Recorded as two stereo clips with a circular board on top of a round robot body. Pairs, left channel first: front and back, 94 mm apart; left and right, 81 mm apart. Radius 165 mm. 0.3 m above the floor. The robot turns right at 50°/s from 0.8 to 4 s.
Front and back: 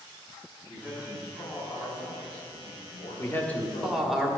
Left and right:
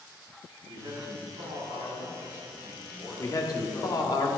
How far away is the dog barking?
I don't hear a dog barking.